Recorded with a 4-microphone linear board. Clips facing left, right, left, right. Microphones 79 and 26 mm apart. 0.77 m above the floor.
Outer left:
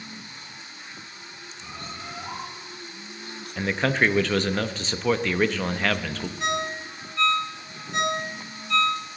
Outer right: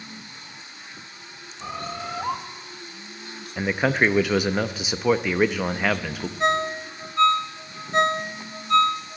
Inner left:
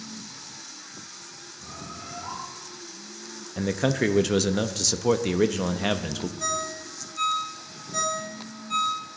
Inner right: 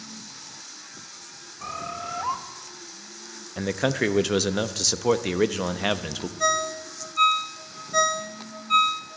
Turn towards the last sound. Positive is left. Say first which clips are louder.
# outer right 6 dB, inner right 9 dB
turn(degrees=-40)  # may be behind; listen again after turning